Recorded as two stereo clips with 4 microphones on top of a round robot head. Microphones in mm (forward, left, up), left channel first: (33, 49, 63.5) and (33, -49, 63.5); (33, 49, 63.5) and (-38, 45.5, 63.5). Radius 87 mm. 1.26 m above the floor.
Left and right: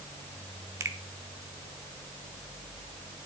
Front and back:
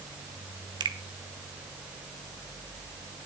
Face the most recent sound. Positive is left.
turn(degrees=-155)